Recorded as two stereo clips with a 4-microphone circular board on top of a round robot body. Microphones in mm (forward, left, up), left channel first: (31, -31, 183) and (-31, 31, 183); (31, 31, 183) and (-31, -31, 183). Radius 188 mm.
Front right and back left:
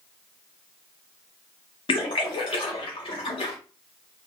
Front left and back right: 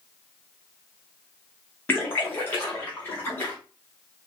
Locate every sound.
1.9 s a splash: 25° right, 0.7 m